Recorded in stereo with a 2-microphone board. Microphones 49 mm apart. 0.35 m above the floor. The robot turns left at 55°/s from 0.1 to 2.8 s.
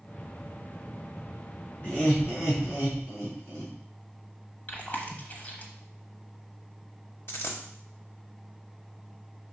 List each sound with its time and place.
1.8 s laughter: 30° left (ahead or behind), 4 m; by 3.7 s 75° left (ahead or behind), 4 m
4.7 s chewing: 30° left (ahead or behind), 1.1 m
7.3 s a dropped coin: 55° left (ahead or behind), 1.0 m